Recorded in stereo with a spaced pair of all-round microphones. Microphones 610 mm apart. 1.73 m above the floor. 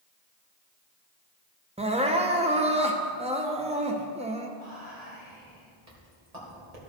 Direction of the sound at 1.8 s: 10° right (ahead or behind).